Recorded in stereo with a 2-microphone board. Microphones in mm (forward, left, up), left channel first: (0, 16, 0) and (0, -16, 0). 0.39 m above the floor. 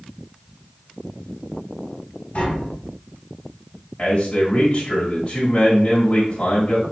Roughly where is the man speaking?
Left.